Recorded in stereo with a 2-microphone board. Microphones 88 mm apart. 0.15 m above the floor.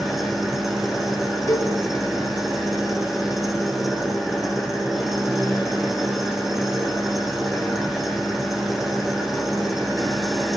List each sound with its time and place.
0.0 s an engine running: 5° right (ahead or behind), 5 m
1.5 s a cowbell: 35° left (ahead or behind), 3.5 m